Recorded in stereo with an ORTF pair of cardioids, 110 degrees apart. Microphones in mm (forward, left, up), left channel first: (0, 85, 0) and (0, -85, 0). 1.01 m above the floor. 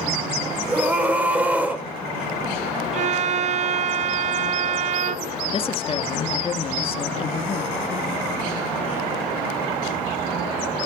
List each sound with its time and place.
0.7 s a scream: 10° right, 4.5 m
2.9 s a violin: 45° right, 0.6 m
5.5 s a woman speaking: 35° left, 1.5 m